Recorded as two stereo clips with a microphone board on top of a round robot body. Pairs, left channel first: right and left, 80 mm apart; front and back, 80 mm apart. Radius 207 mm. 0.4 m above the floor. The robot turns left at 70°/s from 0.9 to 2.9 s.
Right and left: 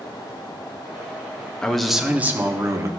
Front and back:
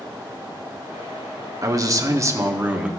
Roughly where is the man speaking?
Behind.